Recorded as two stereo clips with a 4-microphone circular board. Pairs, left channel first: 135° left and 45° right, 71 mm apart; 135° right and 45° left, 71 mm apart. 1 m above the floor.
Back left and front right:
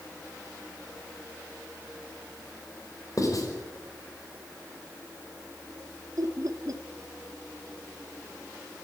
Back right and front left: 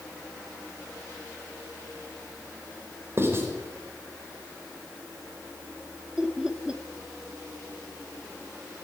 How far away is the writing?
About 5 m.